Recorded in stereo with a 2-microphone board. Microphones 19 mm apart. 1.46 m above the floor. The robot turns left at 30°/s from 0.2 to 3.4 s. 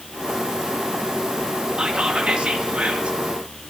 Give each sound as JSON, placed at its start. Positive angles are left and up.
{"t": 1.8, "sound": "whispering", "azimuth_deg": -55, "distance_m": 2.5}